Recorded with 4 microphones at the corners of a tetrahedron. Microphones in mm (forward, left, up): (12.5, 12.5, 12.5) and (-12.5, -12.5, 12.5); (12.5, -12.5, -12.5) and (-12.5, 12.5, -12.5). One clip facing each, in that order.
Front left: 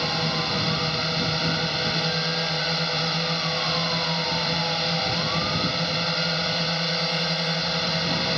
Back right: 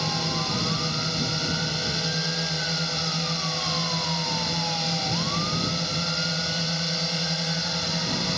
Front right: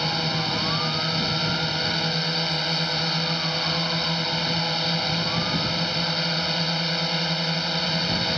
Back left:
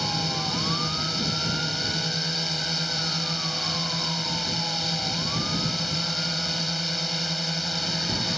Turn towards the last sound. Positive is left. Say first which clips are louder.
# front left 2 dB, front right 3 dB
turn(degrees=0)